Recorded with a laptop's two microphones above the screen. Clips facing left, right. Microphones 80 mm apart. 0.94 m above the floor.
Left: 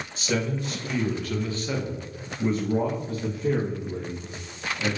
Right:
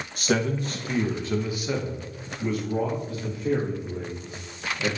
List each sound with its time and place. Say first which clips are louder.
0.2 s a man speaking: right 3 dB; 55° right (ahead or behind), 1.0 m; by 4.9 s 70° left (ahead or behind), 1.7 m